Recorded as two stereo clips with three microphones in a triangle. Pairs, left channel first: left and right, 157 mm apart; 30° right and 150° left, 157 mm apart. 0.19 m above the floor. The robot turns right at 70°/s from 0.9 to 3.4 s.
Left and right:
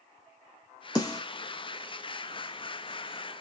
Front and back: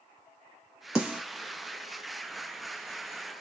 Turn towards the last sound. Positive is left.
turn(degrees=-115)